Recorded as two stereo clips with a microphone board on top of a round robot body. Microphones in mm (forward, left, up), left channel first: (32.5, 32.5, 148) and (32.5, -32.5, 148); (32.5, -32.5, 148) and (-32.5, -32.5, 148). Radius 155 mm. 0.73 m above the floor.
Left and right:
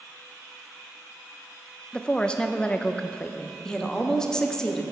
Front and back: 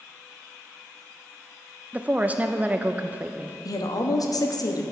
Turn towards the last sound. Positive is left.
turn(degrees=10)